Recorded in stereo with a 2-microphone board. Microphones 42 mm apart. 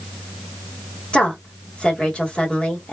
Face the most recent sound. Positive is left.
turn(degrees=30)  # may be behind; listen again after turning